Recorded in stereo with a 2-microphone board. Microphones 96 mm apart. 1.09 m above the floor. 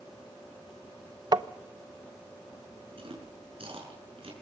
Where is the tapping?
45° right (ahead or behind), 0.7 m.